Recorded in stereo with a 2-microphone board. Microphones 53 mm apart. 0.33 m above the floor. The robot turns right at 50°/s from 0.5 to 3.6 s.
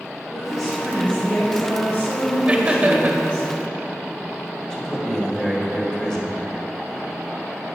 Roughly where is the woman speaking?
Ahead.